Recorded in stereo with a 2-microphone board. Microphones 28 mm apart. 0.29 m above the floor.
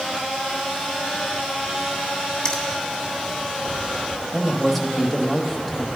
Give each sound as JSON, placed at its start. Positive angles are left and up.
{"t": 2.5, "sound": "a finger snap", "side_deg": 30, "distance_m": 1.4}
{"t": 4.3, "sound": "a woman speaking", "side_deg": 0, "distance_m": 1.1}